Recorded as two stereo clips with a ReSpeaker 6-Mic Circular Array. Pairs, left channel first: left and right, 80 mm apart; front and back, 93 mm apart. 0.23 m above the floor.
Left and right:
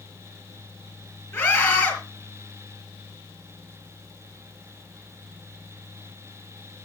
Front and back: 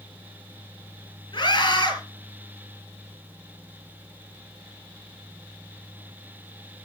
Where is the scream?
35° left, 4.5 m.